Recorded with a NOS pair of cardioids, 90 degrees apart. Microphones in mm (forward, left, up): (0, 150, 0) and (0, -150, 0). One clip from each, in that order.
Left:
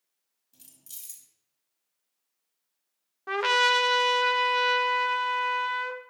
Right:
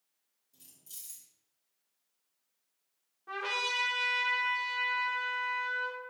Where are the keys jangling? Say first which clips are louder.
Left 3 dB; 50° left, 1.7 m.